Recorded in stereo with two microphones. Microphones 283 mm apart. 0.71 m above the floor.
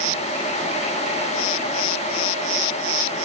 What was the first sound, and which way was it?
Only background noise.